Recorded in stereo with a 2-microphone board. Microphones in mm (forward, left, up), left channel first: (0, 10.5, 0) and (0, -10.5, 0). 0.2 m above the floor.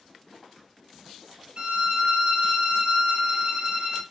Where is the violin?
45° right (ahead or behind), 0.7 m.